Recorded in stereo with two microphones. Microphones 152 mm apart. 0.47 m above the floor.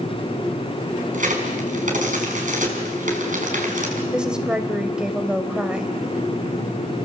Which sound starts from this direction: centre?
A woman speaking, at 4.1 s.